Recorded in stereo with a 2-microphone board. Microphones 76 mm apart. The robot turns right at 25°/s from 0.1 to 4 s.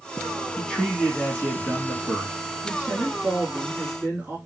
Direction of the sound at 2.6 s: 10° right (ahead or behind).